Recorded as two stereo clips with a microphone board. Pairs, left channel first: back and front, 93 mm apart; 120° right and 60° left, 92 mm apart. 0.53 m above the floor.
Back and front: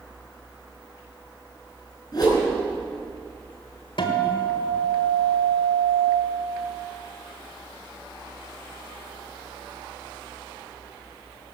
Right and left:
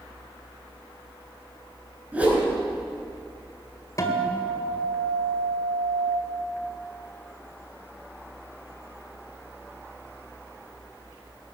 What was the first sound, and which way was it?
A whoosh, 135° left.